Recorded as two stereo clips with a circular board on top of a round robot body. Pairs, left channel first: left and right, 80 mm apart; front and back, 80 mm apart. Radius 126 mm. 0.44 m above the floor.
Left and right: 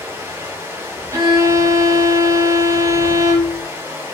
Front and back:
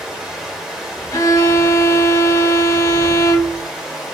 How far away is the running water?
About 1.1 m.